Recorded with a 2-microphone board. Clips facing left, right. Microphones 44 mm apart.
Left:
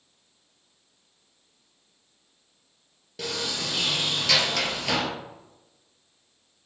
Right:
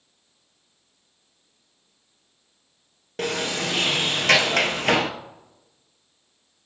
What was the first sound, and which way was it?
A sliding door, 50° right (ahead or behind).